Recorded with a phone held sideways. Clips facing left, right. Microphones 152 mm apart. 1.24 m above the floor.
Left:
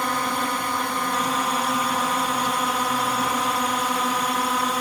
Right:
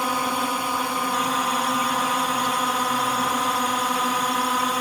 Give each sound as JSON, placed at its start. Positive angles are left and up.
{"t": 0.0, "sound": "a drone", "side_deg": -10}